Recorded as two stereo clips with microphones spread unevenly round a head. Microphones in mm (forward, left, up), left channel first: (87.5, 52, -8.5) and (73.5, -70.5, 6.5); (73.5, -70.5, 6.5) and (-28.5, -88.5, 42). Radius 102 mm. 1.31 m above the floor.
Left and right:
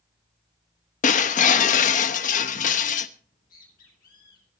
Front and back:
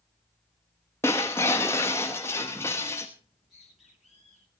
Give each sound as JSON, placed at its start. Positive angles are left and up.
{"t": 1.0, "sound": "breaking glass", "azimuth_deg": 100, "distance_m": 0.8}
{"t": 3.2, "sound": "a bird", "azimuth_deg": 100, "distance_m": 8.0}